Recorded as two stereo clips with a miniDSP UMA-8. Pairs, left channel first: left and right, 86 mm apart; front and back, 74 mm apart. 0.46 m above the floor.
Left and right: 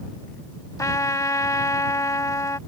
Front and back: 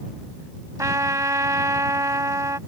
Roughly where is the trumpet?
Behind left.